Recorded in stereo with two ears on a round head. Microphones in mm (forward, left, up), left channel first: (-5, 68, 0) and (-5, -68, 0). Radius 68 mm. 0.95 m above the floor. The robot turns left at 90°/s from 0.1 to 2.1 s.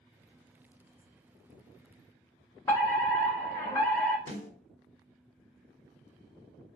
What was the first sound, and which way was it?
A fire alarm, 20° left (ahead or behind).